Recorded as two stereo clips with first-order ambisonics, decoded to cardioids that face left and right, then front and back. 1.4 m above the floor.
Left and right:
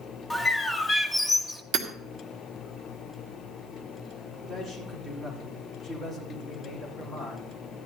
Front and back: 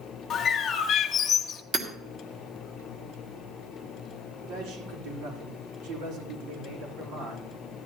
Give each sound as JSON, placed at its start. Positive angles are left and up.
{"t": 0.3, "sound": "a bird", "azimuth_deg": 5, "distance_m": 0.9}
{"t": 1.7, "sound": "hammering", "azimuth_deg": -120, "distance_m": 1.8}
{"t": 4.4, "sound": "a man speaking", "azimuth_deg": 180, "distance_m": 4.0}